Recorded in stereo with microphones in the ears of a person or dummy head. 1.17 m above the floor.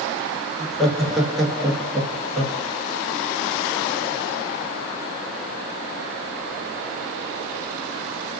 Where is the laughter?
Centre (ahead or behind), 0.8 m.